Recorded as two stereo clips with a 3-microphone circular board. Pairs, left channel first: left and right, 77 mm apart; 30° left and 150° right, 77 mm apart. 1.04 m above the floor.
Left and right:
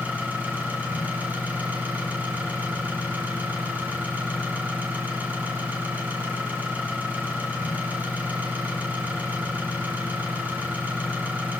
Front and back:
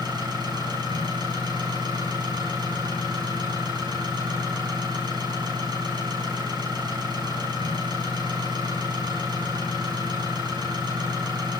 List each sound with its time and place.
0.0 s an engine running: 155° right, 6.5 m